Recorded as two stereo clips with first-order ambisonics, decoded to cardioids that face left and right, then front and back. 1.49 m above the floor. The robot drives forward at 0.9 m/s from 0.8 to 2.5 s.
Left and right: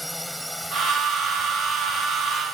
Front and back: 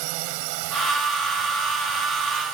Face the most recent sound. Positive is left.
turn(degrees=-175)